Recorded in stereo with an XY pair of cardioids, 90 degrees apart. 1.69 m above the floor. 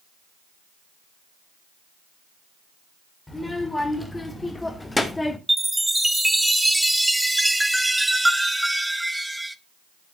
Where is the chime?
5° right, 0.6 m.